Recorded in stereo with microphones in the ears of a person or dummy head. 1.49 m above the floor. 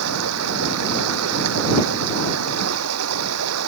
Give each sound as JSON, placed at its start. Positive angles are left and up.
{"t": 0.0, "sound": "running water", "side_deg": -80}